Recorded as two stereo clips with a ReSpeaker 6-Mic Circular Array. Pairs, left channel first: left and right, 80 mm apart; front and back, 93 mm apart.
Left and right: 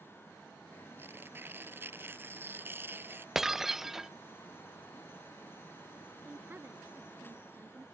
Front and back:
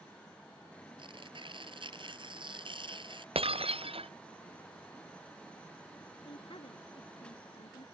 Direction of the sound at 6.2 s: 25° right.